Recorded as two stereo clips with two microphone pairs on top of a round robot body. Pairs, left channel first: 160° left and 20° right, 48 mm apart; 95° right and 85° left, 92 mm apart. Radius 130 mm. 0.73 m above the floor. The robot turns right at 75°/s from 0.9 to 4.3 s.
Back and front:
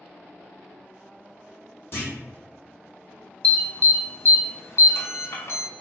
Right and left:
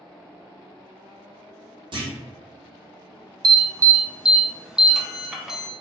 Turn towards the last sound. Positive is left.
turn(degrees=165)